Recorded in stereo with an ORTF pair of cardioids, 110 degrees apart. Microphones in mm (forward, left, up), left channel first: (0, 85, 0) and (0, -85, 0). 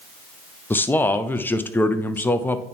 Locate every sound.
0.7 s a man speaking: 10° left, 0.7 m